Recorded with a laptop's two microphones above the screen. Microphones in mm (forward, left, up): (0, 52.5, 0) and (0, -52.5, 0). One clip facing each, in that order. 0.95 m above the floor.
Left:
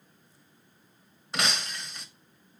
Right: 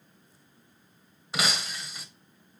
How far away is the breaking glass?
About 1.4 m.